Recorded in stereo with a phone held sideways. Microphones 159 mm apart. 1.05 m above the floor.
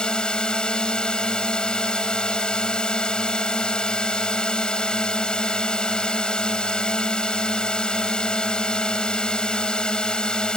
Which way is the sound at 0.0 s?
5° left (ahead or behind).